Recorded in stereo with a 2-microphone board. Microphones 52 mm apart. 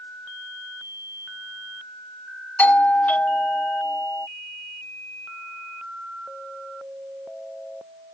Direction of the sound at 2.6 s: 30° left (ahead or behind).